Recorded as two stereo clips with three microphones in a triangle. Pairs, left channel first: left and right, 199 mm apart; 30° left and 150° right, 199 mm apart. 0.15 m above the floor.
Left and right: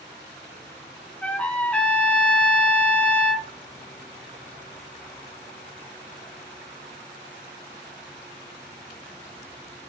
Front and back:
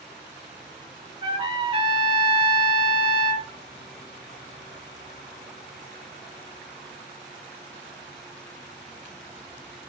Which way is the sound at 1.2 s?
170° left.